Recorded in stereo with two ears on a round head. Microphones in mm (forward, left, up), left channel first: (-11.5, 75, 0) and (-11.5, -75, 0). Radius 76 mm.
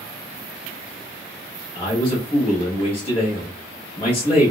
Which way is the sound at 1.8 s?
35° left (ahead or behind).